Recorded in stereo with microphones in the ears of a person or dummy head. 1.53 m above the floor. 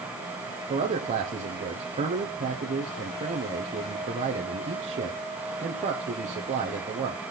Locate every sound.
0.7 s a man speaking: 35° right (ahead or behind), 1.0 m